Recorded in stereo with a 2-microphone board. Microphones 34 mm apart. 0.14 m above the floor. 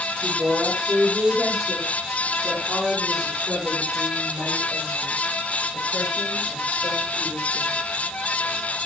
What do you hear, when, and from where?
0.2 s a woman speaking: 70° right (ahead or behind), 8 m; by 7.7 s 75° right (ahead or behind), 12.5 m